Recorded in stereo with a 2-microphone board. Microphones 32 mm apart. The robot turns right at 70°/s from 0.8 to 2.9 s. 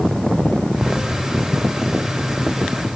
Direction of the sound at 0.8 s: 55° right (ahead or behind).